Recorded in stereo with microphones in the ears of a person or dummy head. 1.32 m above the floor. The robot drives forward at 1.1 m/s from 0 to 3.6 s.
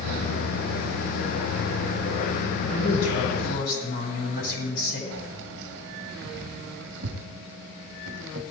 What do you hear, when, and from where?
2.7 s a woman speaking: 55° left (ahead or behind), 8.5 m; by 5.0 s 65° left (ahead or behind), 8 m
5.1 s keys jangling: 60° right (ahead or behind), 1.4 m